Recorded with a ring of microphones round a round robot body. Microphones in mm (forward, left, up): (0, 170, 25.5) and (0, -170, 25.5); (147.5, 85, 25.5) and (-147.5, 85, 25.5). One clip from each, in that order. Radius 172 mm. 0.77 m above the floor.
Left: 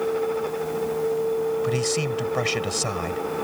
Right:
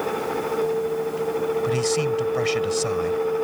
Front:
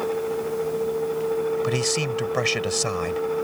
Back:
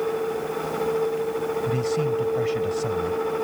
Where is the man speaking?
Straight ahead.